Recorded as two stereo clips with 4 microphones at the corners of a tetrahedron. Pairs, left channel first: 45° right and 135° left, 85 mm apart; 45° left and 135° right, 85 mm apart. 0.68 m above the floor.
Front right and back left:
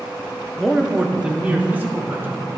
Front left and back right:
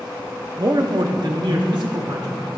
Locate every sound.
0.6 s a man speaking: 130° right, 0.6 m; by 2.3 s 160° right, 1.7 m